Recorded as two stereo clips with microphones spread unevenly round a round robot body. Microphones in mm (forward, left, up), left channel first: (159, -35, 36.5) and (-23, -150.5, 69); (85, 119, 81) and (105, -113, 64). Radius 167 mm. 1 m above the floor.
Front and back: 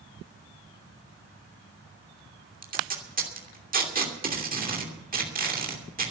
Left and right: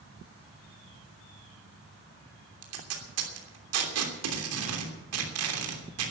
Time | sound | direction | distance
2.6 | tape being pulled | 95° right | 3 m